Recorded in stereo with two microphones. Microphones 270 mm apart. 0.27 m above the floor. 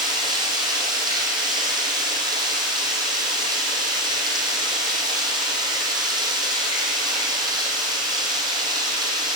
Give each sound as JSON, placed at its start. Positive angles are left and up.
{"t": 0.0, "sound": "running water", "side_deg": -15, "distance_m": 2.5}